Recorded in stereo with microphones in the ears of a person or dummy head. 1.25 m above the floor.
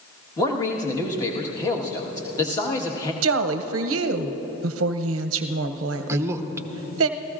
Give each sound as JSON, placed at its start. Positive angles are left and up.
{"t": 0.4, "sound": "a man speaking", "side_deg": 20, "distance_m": 1.5}
{"t": 3.2, "sound": "a woman speaking", "side_deg": -85, "distance_m": 0.6}
{"t": 6.1, "sound": "a man speaking", "side_deg": -15, "distance_m": 0.9}